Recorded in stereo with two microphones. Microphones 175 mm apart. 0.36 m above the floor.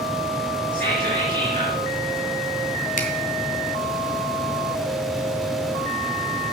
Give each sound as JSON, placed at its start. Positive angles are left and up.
{"t": 0.7, "sound": "whispering", "side_deg": -55, "distance_m": 5.0}
{"t": 3.0, "sound": "a finger snap", "side_deg": 50, "distance_m": 2.5}